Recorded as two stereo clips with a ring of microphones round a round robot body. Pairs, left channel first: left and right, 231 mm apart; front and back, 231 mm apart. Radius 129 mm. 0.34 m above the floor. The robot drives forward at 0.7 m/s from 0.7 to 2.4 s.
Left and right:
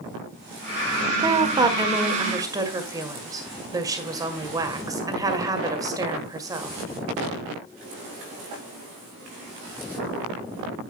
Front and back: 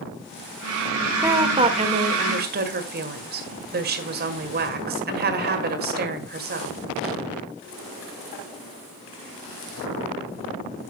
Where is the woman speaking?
120° right, 1.3 m; by 6.8 s 160° right, 1.7 m.